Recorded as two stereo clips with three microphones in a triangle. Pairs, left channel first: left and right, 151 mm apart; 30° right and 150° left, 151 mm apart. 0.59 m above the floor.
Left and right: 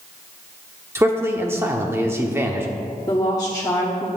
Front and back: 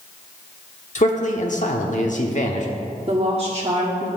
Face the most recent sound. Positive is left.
turn(degrees=140)